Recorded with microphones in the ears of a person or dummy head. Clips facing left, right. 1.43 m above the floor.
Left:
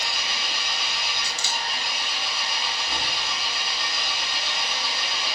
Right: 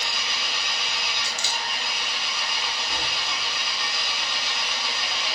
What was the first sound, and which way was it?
An engine running, 45° left (ahead or behind).